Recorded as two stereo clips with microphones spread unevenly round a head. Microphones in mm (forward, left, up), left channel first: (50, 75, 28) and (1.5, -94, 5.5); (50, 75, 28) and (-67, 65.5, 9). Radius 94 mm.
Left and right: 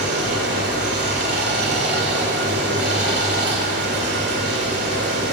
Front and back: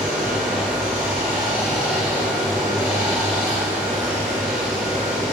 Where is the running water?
80° right, 1.5 m.